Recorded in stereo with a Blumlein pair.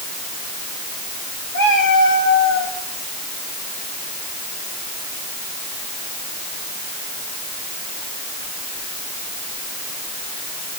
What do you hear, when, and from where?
1.5 s a cat meowing: 55° left, 5.5 m; by 2.8 s 60° left, 6.5 m